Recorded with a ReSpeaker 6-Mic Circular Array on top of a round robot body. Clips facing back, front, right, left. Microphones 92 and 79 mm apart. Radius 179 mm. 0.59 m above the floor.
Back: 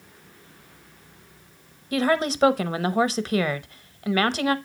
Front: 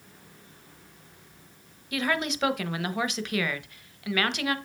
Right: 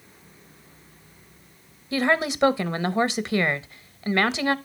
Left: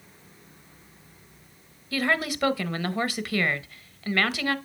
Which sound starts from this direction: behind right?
A woman speaking, at 1.9 s.